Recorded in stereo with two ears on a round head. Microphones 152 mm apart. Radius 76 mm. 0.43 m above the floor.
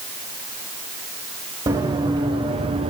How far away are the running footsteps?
About 3 m.